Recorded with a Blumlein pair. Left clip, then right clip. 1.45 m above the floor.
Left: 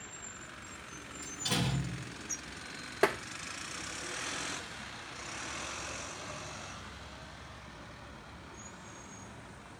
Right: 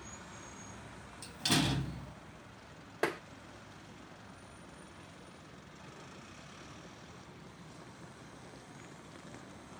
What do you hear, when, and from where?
1.2 s a door slam: 25° right, 2.5 m
3.0 s tapping: 15° left, 0.7 m